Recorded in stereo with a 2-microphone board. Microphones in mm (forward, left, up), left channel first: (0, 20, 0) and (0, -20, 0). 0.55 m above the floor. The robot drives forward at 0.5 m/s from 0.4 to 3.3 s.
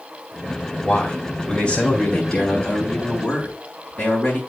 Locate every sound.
0.8 s a man speaking: 20° left (ahead or behind), 2.5 m; by 4.4 s 15° left (ahead or behind), 3.5 m